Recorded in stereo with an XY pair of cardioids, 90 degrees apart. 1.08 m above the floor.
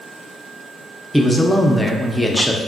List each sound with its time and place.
1.1 s a man speaking: 5° left, 0.5 m